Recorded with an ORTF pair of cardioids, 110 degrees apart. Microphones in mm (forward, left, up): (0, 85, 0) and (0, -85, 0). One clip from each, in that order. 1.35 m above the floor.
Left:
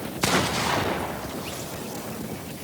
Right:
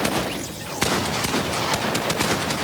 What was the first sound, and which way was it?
Only background noise.